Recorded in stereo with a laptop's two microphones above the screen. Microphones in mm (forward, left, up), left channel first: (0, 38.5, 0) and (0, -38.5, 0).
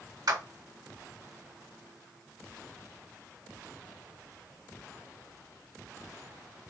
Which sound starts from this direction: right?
A clap, at 0.3 s.